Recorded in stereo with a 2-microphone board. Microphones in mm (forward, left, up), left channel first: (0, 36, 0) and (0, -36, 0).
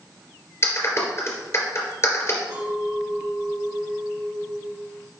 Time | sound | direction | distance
0.6 | a clap | 35° left (ahead or behind) | 3 m
2.5 | a clink | 65° right (ahead or behind) | 4.5 m